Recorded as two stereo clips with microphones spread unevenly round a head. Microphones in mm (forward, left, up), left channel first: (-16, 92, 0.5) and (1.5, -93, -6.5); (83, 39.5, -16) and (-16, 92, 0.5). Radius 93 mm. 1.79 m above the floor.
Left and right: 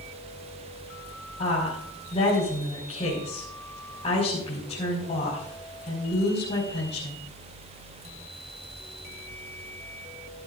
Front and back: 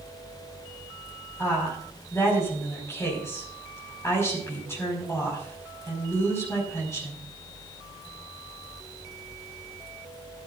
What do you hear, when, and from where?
1.4 s a woman speaking: 40° left, 5.5 m